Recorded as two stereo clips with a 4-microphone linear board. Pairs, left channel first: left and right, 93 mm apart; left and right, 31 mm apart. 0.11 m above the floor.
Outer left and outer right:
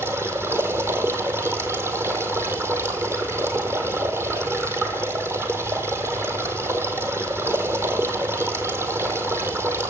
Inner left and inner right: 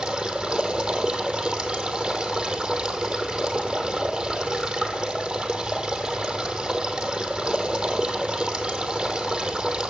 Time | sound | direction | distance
0.0 | running water | 25° right (ahead or behind) | 1.3 m